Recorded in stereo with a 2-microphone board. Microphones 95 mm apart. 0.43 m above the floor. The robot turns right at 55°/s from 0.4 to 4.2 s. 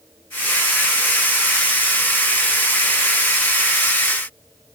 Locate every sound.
Only background noise.